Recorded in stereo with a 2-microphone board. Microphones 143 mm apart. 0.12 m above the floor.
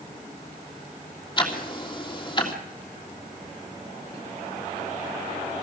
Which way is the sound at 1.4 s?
30° left (ahead or behind).